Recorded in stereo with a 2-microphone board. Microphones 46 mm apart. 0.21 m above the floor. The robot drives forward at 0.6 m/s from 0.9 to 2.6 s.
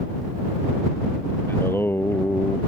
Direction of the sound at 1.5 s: 55° left (ahead or behind).